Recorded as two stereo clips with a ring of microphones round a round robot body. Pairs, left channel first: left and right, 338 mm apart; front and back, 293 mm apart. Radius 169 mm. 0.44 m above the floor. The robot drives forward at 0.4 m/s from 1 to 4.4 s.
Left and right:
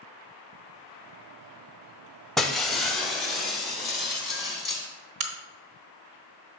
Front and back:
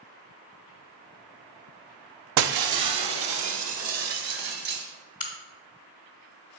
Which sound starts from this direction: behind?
Breaking glass, at 2.4 s.